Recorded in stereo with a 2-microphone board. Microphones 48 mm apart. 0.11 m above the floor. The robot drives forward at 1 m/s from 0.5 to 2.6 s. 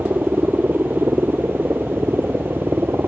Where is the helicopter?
45° right (ahead or behind); by 3.1 s 50° right (ahead or behind).